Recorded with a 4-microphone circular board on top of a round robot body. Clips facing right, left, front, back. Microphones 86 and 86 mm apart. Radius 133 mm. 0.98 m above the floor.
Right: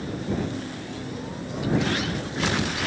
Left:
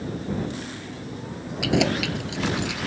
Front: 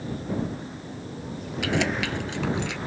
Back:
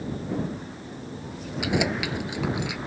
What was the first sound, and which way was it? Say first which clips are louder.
Keys jangling: left 2 dB, even; 105° left.